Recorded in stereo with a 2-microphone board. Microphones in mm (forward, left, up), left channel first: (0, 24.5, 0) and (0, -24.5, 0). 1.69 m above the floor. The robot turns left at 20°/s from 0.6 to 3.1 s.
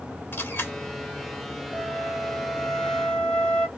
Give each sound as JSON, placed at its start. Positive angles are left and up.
{"t": 0.3, "sound": "a camera shutter", "side_deg": 45, "distance_m": 2.5}
{"t": 1.7, "sound": "a flute", "side_deg": -15, "distance_m": 0.8}